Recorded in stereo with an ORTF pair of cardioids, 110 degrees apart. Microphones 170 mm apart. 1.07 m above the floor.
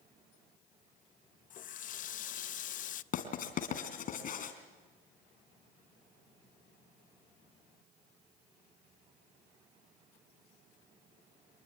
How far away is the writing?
About 3 m.